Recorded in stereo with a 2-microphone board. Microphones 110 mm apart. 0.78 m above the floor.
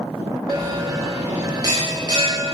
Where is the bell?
35° right (ahead or behind), 1.4 m.